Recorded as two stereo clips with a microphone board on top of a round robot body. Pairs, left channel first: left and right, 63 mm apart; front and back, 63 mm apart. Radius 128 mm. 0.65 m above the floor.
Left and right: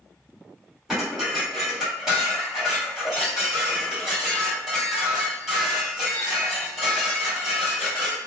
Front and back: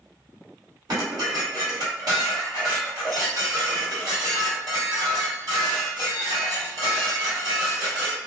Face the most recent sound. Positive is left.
turn(degrees=-175)